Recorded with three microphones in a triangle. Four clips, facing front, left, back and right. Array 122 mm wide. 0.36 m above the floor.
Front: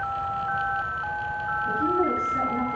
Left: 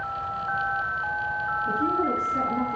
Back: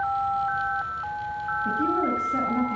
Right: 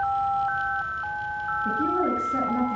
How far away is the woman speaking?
About 5.5 m.